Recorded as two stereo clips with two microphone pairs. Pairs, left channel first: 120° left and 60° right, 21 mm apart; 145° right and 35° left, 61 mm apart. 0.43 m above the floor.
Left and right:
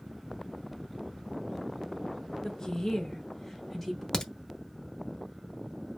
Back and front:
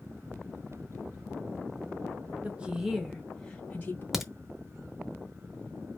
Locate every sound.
2.4 s a woman speaking: 85° left, 0.9 m; by 4.0 s 165° right, 0.9 m
4.1 s a crack: 115° left, 0.8 m